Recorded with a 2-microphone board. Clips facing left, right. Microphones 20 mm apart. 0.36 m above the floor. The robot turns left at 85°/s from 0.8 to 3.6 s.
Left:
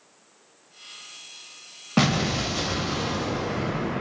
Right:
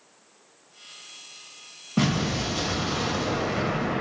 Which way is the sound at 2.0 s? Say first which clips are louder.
Left 2 dB; 65° left.